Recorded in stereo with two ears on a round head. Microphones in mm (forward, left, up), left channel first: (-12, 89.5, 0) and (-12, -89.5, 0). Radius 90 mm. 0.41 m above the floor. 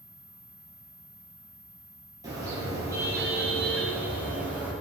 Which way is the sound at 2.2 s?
20° right (ahead or behind).